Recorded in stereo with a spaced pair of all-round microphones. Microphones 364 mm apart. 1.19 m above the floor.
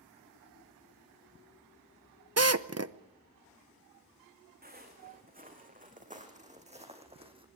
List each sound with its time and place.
2.4 s a drill: 45° right (ahead or behind), 0.8 m
4.6 s footsteps: 25° right (ahead or behind), 6.5 m; by 7.5 s 15° right (ahead or behind), 4 m